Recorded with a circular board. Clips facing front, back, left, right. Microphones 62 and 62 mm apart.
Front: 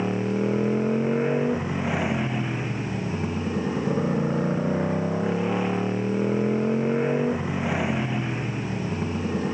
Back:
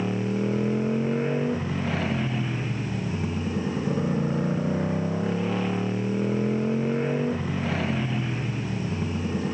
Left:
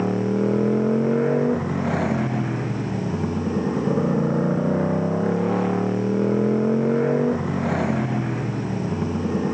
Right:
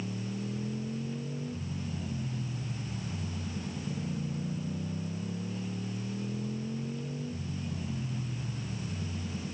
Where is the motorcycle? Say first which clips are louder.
Front 2 dB, left 16 dB; 75° left.